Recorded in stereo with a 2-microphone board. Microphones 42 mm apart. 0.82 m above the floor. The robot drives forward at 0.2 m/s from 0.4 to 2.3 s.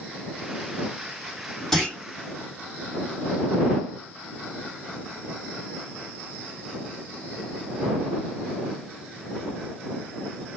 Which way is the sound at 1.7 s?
10° left (ahead or behind).